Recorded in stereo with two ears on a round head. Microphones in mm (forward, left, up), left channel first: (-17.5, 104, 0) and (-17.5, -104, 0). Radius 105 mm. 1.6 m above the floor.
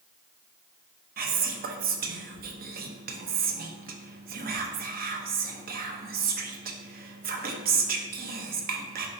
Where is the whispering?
40° right (ahead or behind), 0.5 m.